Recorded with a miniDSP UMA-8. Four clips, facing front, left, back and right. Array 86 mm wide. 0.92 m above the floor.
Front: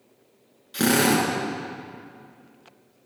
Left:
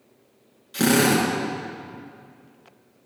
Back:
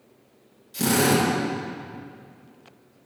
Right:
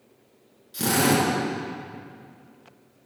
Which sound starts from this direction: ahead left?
A drill, at 0.7 s.